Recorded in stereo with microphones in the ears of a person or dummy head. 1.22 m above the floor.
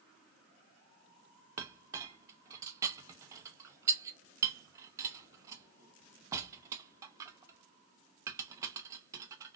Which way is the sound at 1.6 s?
20° right (ahead or behind).